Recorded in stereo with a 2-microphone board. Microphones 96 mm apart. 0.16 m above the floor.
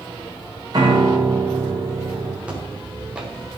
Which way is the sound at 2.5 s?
10° right (ahead or behind).